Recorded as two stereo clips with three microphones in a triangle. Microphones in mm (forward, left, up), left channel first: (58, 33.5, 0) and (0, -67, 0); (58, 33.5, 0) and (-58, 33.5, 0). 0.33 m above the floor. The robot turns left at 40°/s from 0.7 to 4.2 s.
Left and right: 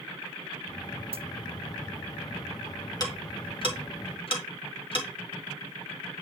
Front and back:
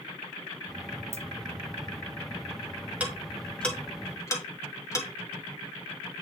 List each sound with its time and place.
1.1 s a dropped coin: 120° right, 0.6 m; by 1.2 s 125° right, 0.6 m
3.0 s ticking: 105° left, 1.8 m; by 5.1 s 55° left, 1.8 m